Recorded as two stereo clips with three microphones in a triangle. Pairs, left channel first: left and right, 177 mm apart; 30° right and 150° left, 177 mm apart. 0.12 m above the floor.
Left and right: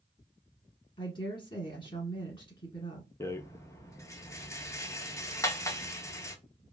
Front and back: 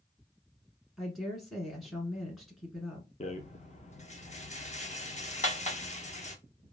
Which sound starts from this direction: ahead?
A rattle, at 3.2 s.